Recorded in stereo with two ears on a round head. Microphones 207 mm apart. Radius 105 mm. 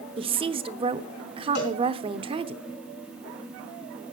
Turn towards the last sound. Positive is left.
turn(degrees=70)  # may be behind; listen again after turning